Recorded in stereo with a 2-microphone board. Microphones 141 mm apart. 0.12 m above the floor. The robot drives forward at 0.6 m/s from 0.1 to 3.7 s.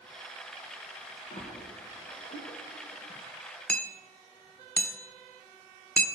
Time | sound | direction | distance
1.3 | a splash | 60° left (ahead or behind) | 4.5 m
3.7 | hammering | 10° left (ahead or behind) | 0.9 m